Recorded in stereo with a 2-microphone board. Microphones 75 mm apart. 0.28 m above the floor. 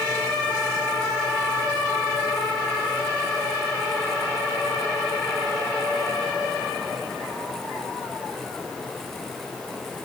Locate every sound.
Only background noise.